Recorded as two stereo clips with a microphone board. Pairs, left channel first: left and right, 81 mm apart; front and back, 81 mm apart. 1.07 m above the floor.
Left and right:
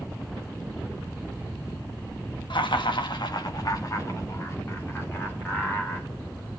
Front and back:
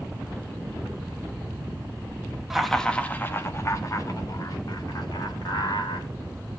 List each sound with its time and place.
2.5 s laughter: 95° left, 1.2 m; by 6.1 s 25° left, 3.5 m